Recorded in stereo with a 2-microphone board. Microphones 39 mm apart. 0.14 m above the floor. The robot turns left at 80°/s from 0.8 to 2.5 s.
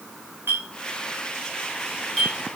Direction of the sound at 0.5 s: 80° right.